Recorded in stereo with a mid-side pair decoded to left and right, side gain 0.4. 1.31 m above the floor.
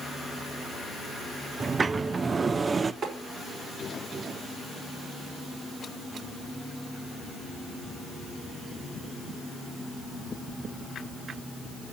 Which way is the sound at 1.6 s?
40° right.